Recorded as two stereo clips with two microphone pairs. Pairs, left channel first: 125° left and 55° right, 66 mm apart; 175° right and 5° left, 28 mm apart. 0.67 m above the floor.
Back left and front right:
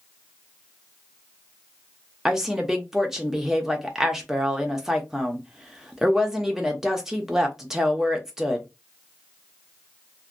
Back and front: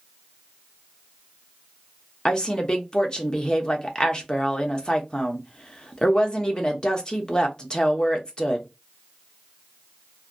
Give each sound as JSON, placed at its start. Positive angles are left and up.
{"t": 2.2, "sound": "a woman speaking", "azimuth_deg": -130, "distance_m": 0.7}